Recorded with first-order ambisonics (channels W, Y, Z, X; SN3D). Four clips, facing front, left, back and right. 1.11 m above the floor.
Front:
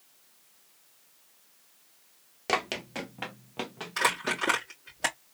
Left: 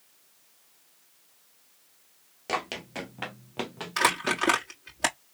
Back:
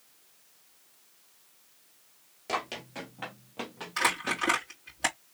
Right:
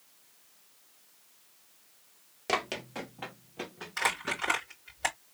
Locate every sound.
2.5 s running footsteps: 10° right, 1.2 m; by 4.4 s 80° left, 2.5 m
4.0 s crumpling: 85° left, 3 m